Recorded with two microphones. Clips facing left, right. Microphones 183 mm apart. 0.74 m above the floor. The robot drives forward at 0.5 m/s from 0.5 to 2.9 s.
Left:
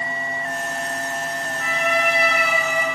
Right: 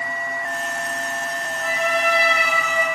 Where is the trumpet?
85° left, 0.5 m; by 3.0 s 35° left (ahead or behind), 0.8 m.